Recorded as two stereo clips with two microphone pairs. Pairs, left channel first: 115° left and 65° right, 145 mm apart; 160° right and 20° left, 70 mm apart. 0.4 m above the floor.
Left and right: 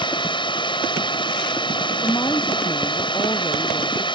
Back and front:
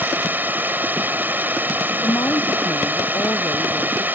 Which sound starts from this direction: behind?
A woman speaking, at 2.0 s.